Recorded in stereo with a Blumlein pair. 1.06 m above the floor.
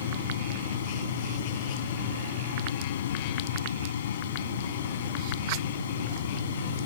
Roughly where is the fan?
Ahead left.